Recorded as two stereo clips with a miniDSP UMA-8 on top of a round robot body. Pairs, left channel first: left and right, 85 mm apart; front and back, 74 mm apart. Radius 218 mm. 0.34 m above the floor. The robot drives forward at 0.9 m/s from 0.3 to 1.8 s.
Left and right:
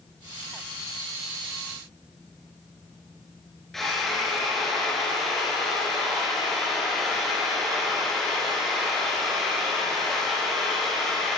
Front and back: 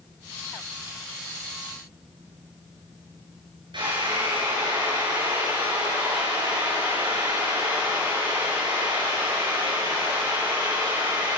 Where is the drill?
175° left, 8.5 m.